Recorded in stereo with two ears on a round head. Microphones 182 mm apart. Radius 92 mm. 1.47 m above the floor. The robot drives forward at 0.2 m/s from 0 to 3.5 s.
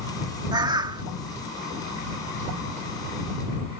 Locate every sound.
0.5 s a bird: 20° right (ahead or behind)